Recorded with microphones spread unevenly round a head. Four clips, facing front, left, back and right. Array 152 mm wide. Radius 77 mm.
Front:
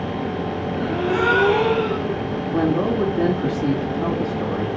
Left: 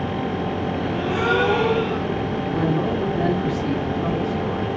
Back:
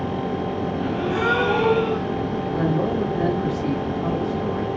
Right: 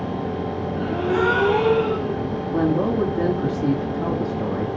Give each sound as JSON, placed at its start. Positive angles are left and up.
{"t": 0.8, "sound": "a gasp", "azimuth_deg": -60, "distance_m": 6.0}
{"t": 2.5, "sound": "a man speaking", "azimuth_deg": -65, "distance_m": 4.5}